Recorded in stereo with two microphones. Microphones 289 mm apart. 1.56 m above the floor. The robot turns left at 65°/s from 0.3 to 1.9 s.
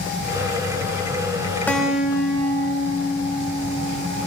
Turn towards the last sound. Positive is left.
turn(degrees=-5)  # may be behind; listen again after turning